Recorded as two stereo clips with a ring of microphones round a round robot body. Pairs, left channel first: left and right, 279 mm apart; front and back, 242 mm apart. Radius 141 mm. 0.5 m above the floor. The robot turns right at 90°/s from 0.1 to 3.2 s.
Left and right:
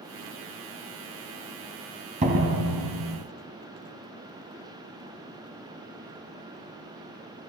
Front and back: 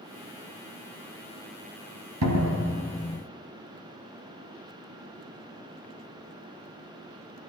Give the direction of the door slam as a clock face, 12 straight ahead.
5 o'clock.